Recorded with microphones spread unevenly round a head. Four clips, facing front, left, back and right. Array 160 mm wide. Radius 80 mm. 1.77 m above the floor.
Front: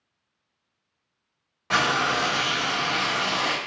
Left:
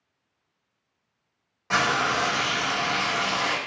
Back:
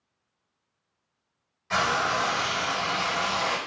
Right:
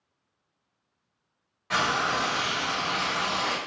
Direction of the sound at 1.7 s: 25° left.